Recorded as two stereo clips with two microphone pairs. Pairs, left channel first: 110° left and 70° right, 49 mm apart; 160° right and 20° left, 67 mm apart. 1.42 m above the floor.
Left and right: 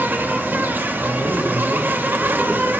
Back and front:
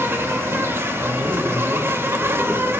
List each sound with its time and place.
0.0 s an insect: 30° right, 1.5 m
1.0 s a man speaking: 60° left, 4 m